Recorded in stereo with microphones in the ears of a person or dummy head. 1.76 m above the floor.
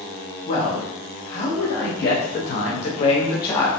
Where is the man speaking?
60° left (ahead or behind), 1.4 m; by 3.7 s 15° left (ahead or behind), 1.1 m.